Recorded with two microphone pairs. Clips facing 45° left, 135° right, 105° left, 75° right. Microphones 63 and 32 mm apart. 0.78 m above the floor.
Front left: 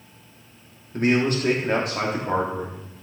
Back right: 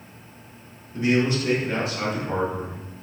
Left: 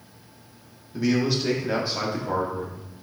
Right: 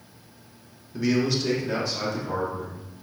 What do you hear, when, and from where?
0.9 s a man speaking: 10° left, 1.7 m; by 2.8 s 55° left, 2 m